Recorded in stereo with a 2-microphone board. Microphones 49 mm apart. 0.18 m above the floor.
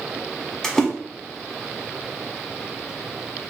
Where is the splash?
10° left (ahead or behind), 1.3 m.